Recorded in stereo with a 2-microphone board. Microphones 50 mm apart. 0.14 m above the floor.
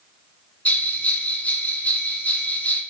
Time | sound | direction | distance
0.7 | a bell | 30° left (ahead or behind) | 0.6 m